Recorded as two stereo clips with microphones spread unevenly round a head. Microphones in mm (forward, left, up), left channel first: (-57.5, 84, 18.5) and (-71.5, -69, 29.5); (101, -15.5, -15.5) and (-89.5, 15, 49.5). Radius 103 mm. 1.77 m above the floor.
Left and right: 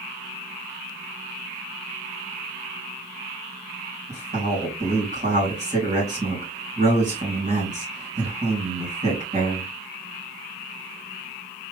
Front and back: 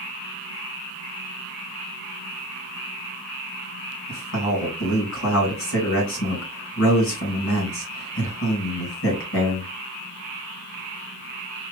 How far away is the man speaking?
About 3.5 m.